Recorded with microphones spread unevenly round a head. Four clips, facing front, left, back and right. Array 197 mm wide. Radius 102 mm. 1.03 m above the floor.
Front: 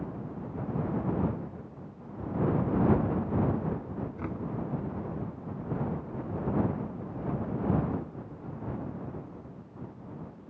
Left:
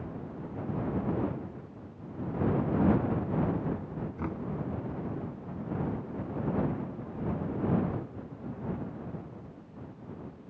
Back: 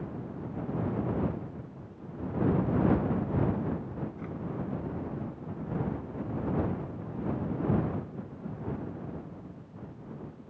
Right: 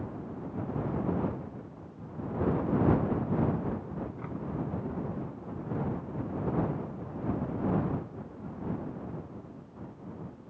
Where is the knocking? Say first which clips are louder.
Left 3 dB, front 3 dB; 50° left.